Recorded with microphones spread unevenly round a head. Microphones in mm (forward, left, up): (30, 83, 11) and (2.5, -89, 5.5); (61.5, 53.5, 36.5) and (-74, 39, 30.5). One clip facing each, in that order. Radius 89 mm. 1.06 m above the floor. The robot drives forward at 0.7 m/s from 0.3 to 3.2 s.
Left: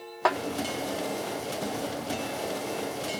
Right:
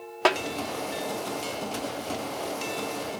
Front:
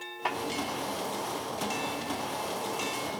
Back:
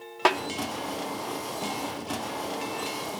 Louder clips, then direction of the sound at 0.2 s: Right 2 dB, back 9 dB; 155° right.